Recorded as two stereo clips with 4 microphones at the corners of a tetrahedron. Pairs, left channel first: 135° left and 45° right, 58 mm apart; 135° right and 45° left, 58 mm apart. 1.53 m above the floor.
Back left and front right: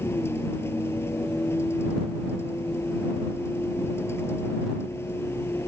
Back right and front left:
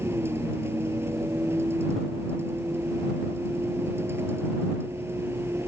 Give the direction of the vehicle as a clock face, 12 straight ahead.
9 o'clock.